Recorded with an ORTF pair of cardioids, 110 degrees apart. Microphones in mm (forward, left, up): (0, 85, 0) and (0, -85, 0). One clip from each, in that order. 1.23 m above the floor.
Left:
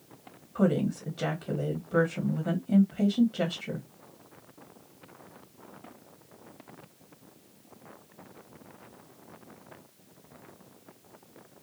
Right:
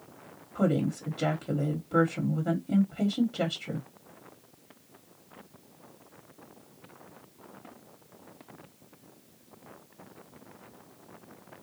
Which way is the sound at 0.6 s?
5° right.